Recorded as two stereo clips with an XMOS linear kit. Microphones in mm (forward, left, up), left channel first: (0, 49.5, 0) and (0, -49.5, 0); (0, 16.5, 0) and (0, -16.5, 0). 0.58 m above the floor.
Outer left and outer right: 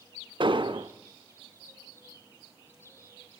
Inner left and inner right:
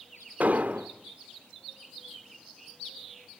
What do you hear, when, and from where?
0.4 s an explosion: 55° right (ahead or behind), 1.0 m